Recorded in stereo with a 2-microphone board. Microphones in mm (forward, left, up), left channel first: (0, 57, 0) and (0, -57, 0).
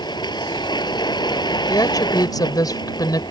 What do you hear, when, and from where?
0.0 s a vehicle: 40° left (ahead or behind)
1.7 s a woman speaking: 35° left (ahead or behind)